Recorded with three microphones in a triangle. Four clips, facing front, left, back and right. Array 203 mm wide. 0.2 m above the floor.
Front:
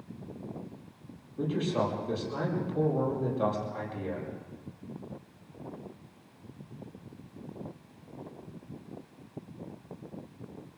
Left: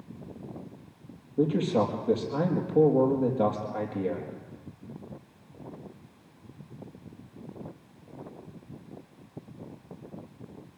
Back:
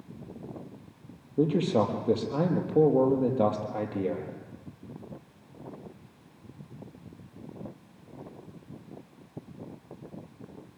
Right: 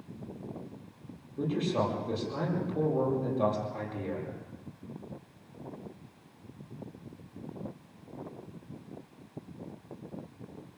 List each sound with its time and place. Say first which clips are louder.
1.4 s a man speaking: left 5 dB, back 5 dB; 150° left, 5 m